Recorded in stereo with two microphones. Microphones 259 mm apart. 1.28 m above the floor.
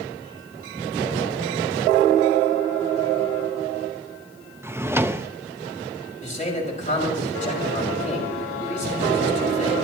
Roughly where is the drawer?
Centre.